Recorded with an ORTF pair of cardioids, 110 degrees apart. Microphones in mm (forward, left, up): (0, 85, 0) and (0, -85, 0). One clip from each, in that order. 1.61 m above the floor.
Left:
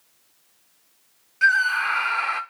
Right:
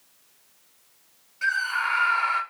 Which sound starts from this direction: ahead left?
A scream, at 1.4 s.